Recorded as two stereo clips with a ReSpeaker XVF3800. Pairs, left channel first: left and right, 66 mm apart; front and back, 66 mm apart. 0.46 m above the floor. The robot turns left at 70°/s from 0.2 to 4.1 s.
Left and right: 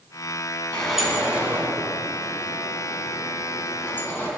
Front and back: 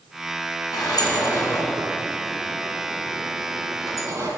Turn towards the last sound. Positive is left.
turn(degrees=140)